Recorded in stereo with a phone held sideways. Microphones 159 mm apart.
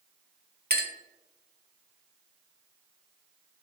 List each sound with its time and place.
0.7 s a clink: 80° right, 0.8 m